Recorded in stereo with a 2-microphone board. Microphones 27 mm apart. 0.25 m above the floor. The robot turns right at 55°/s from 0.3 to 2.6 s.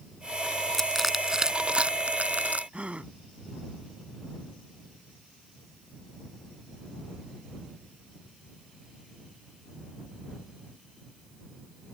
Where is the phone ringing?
I don't hear a phone ringing.